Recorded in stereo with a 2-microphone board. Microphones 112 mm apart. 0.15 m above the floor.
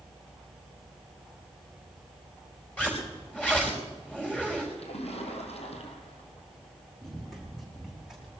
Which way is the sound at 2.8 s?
10° left (ahead or behind).